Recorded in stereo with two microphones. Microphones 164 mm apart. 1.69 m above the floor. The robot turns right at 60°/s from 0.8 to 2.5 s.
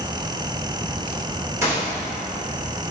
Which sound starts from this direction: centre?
A gunshot, at 1.6 s.